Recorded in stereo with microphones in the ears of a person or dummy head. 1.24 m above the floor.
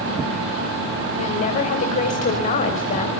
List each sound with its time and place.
1.2 s a woman speaking: 40° left (ahead or behind), 5.5 m